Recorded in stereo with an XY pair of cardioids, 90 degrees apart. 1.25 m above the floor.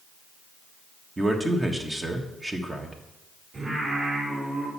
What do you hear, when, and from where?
1.2 s a man speaking: 20° right, 1.5 m
3.5 s singing: 40° right, 5 m